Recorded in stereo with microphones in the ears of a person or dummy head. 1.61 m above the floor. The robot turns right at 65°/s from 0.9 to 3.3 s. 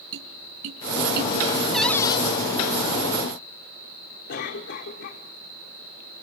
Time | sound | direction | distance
0.1 | tapping | 75° right (ahead or behind) | 5.5 m
1.7 | a cupboard door | 5° right | 0.9 m
4.3 | a cough | 60° left (ahead or behind) | 5.5 m